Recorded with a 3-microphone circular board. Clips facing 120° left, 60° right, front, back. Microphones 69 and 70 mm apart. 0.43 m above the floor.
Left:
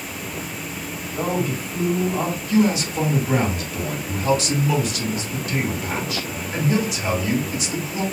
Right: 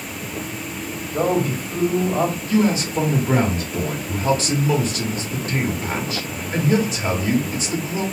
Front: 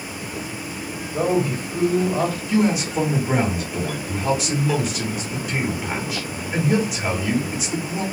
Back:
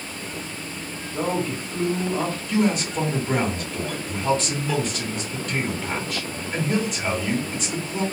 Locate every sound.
1.1 s a man speaking: 50° right, 2.0 m
2.5 s a man speaking: 75° right, 1.1 m